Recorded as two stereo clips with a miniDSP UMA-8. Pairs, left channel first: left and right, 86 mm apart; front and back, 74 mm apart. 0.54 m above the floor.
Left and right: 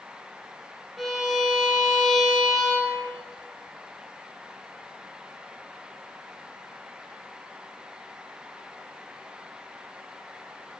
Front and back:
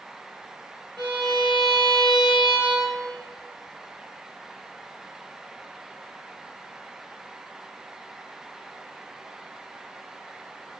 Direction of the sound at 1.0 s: Straight behind.